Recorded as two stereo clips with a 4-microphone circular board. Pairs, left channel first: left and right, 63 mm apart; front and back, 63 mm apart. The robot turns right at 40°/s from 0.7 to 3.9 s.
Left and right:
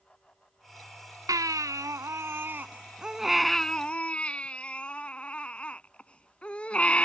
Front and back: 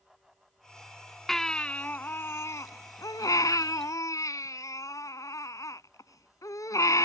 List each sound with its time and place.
1.3 s a baby crying: 85° right; by 7.0 s 20° left